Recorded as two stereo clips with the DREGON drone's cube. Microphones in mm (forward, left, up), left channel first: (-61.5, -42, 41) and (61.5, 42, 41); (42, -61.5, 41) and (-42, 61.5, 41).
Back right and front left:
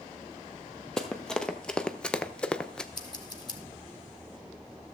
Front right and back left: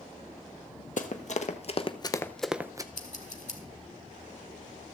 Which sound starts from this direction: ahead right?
Running footsteps, at 1.0 s.